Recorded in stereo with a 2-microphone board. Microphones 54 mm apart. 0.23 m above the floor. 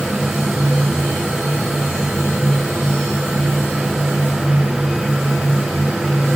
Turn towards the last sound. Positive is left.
No sound to turn to.